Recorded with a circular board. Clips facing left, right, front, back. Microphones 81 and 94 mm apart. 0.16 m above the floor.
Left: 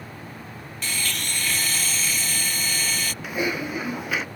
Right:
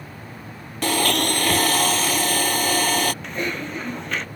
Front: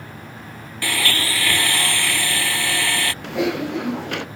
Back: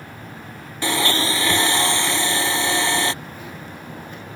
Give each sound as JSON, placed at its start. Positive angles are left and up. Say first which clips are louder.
{"t": 0.8, "sound": "a blender", "louder": "right 11 dB, back 3 dB", "azimuth_deg": -110}
{"t": 3.2, "sound": "typing on a keyboard", "louder": "left 1 dB, front 14 dB", "azimuth_deg": 10}